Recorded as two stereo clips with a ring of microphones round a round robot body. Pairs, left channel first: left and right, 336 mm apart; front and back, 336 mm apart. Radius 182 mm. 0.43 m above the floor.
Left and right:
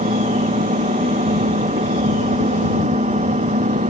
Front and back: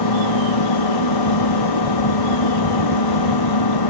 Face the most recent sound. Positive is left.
turn(degrees=-15)